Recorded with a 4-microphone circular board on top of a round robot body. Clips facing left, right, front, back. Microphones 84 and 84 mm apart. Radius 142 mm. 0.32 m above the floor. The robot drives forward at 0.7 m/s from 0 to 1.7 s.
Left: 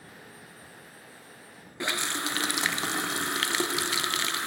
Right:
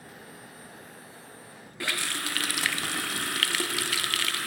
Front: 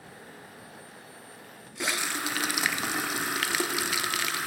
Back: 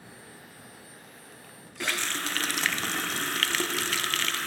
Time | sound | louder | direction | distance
1.8 | a running tap | left 2 dB, front 1 dB | 65° left | 0.5 m